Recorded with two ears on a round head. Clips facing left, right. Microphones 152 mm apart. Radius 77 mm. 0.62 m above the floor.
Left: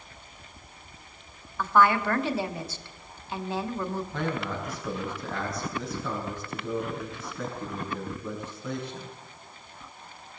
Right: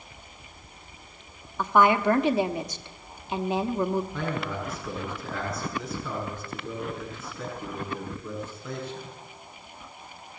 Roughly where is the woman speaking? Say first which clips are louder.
Right 2 dB; centre.